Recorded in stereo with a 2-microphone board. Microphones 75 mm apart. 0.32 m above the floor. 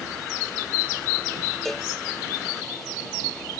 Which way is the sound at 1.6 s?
5° left (ahead or behind).